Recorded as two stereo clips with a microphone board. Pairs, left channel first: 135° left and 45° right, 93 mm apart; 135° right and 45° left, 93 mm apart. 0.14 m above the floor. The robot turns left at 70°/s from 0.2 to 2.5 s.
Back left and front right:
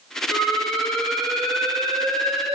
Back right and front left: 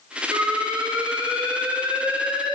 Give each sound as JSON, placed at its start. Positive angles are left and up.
{"t": 0.3, "sound": "an alarm", "azimuth_deg": 105, "distance_m": 4.5}